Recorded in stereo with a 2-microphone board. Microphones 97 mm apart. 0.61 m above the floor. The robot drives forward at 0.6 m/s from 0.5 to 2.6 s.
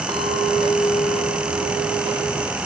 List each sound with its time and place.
0.1 s a clink: 55° right (ahead or behind), 3.5 m; by 2.6 s 75° right (ahead or behind), 3 m